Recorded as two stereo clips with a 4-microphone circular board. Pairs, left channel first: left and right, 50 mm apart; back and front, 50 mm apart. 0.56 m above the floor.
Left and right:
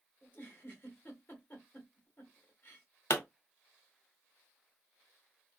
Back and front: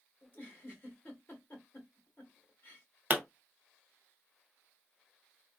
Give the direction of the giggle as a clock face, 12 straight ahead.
8 o'clock.